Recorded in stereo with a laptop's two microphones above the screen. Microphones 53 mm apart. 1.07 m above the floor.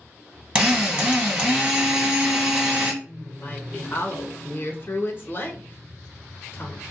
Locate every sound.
0.6 s a drill: 20° right (ahead or behind), 1.4 m
3.0 s a woman speaking: 35° left (ahead or behind), 0.6 m